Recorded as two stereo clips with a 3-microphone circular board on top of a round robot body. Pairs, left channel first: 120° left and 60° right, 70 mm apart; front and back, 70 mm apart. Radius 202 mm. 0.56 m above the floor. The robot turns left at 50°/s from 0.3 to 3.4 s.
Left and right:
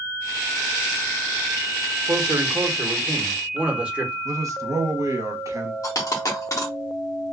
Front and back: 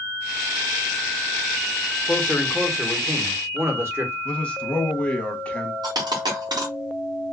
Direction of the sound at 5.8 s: 165° left.